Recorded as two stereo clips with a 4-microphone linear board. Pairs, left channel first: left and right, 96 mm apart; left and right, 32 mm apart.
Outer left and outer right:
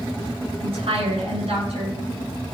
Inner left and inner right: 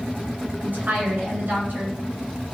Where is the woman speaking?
70° right (ahead or behind), 9.5 m.